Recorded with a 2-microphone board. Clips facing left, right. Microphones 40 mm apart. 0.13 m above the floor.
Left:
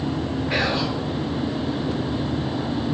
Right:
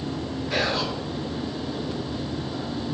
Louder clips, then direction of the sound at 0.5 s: Left 1 dB; 35° left (ahead or behind).